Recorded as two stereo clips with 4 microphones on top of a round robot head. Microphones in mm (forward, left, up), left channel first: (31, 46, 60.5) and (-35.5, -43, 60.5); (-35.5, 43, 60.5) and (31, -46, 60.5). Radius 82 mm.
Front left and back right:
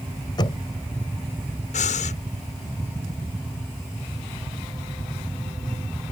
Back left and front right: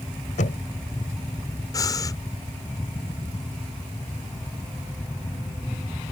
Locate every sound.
0.4 s knocking: 105° left
1.7 s breathing: 65° left